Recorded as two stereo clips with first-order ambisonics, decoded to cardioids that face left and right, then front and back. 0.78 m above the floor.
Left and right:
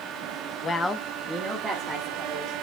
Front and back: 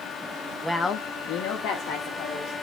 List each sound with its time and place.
0.6 s a woman speaking: 105° left, 0.6 m; by 2.5 s 25° right, 2.0 m